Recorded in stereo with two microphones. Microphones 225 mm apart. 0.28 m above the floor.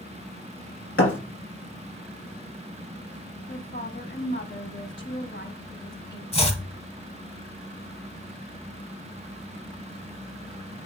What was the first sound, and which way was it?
A thud, 75° left (ahead or behind).